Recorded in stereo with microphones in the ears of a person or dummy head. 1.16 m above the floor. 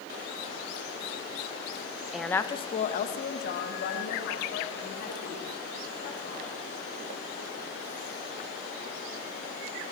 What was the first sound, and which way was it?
A woman speaking, centre (ahead or behind).